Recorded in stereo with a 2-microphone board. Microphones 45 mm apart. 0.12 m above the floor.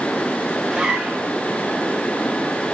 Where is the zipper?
10° right (ahead or behind), 2.5 m.